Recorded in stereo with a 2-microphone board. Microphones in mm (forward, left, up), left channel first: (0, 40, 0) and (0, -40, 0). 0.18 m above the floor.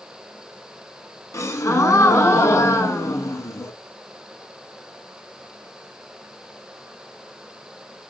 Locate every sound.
1.3 s a gasp: 35° left (ahead or behind), 0.5 m